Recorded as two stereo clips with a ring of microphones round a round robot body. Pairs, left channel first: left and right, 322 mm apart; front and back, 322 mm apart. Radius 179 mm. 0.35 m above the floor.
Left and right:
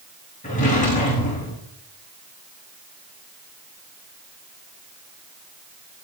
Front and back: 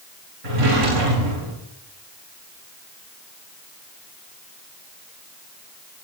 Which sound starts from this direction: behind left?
A drawer, at 0.4 s.